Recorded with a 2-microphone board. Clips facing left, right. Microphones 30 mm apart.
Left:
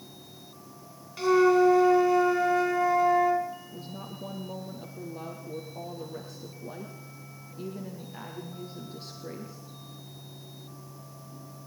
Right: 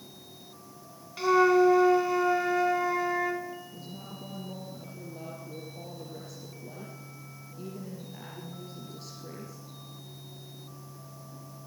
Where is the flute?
5° right (ahead or behind), 1.8 m.